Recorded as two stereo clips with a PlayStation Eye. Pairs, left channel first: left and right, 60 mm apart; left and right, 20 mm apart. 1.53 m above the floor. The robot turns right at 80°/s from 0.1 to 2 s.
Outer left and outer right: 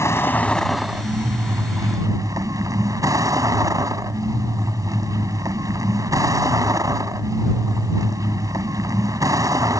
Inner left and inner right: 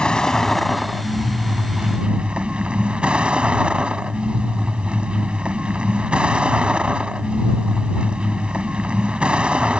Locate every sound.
0.0 s a vehicle: 125° left; by 9.8 s 80° right